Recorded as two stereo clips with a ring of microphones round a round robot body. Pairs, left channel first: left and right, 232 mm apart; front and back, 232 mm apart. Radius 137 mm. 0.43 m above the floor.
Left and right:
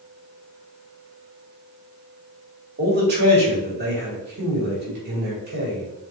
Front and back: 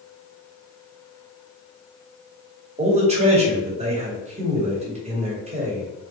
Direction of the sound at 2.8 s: 125° right.